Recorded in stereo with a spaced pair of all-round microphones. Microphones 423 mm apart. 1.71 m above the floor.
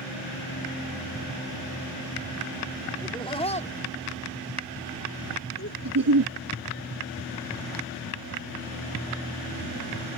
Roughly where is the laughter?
Centre.